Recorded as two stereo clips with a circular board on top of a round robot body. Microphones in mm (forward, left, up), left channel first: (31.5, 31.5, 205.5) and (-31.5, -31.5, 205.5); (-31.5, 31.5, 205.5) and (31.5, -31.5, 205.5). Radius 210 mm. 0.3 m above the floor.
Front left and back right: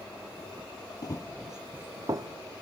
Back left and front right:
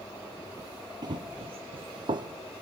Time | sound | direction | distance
1.0 | running footsteps | straight ahead | 0.6 m